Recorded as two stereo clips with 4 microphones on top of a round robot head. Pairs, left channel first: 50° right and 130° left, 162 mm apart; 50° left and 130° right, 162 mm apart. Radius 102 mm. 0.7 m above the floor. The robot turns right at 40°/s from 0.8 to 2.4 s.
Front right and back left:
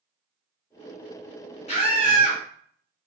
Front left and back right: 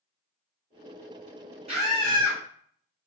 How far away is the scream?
About 1.7 m.